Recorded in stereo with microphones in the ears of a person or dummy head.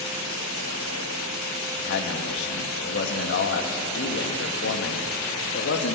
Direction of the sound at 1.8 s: 75° left (ahead or behind).